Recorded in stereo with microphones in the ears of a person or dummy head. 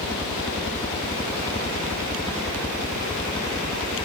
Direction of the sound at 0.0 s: 15° left (ahead or behind).